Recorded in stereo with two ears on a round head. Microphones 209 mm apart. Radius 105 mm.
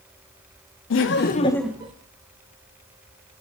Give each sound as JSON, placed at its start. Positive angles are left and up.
{"t": 0.9, "sound": "laughter", "side_deg": 60, "distance_m": 0.8}